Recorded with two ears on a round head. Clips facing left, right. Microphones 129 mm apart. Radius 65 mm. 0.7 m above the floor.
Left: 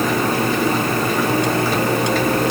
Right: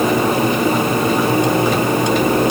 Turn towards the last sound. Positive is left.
No sound to turn to.